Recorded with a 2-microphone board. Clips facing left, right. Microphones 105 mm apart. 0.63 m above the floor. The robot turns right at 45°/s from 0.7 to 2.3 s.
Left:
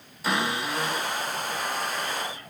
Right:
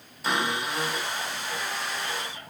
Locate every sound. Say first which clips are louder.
0.2 s a cupboard door: left 1 dB; straight behind, 4.5 m; by 2.5 s 110° right, 4.5 m